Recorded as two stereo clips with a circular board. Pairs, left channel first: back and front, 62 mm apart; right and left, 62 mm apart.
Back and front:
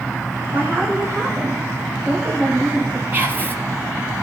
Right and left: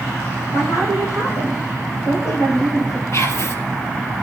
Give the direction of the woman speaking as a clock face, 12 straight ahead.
2 o'clock.